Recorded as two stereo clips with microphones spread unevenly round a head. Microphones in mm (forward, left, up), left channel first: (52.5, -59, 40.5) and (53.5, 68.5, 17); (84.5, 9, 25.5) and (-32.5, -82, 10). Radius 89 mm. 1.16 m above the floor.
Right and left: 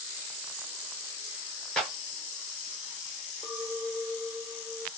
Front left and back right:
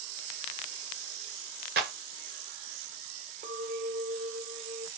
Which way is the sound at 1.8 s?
175° right.